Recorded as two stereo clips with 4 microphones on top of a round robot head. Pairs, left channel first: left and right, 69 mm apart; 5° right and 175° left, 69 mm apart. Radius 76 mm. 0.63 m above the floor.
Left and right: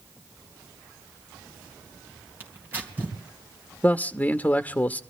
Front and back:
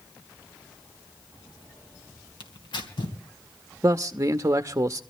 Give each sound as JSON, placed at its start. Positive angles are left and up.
{"t": 2.4, "sound": "tearing paper", "azimuth_deg": -25, "distance_m": 3.0}
{"t": 3.8, "sound": "a man speaking", "azimuth_deg": 150, "distance_m": 0.8}